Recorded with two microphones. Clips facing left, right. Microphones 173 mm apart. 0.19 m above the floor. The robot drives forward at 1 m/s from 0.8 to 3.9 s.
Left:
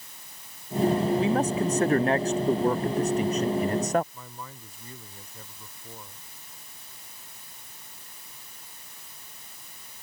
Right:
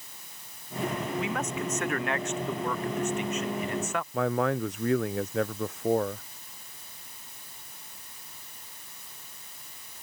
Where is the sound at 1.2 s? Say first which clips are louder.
Left 7 dB; 30° left (ahead or behind); by 4.0 s 40° left (ahead or behind).